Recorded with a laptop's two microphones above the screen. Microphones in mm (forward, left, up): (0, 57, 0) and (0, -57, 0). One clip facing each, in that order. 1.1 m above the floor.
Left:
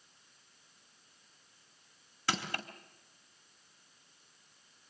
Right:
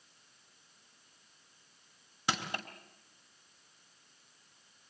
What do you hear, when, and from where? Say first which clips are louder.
2.3 s crushing: even; 20° right (ahead or behind), 2.5 m